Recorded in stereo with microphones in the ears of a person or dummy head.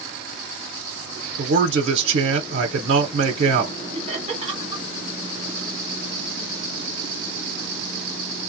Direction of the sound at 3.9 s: 35° right (ahead or behind).